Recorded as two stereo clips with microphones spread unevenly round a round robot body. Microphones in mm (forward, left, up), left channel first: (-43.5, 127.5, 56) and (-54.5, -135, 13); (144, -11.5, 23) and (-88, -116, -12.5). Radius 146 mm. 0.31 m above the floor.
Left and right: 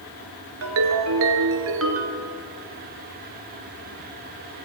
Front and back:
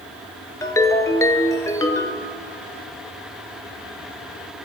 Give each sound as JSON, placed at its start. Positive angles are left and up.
{"t": 0.6, "sound": "a ringtone", "azimuth_deg": -55, "distance_m": 2.5}